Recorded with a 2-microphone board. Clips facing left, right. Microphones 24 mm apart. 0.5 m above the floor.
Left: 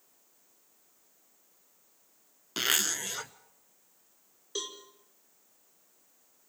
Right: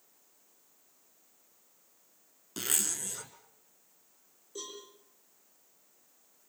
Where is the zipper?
45° left (ahead or behind), 0.9 m.